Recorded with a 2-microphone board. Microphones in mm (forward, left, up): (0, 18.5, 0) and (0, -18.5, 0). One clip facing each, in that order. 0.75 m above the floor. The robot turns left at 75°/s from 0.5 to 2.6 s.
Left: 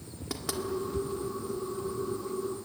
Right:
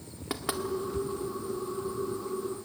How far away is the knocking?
About 1.9 m.